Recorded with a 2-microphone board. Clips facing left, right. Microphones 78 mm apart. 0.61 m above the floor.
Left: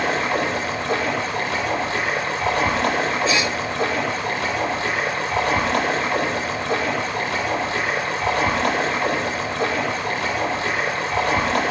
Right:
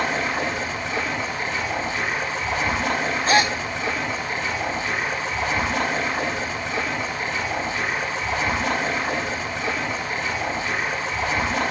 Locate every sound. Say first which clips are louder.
0.0 s running water: left 3 dB; 75° left (ahead or behind), 10 m
3.3 s a gasp: right 2 dB; 45° right (ahead or behind), 1.0 m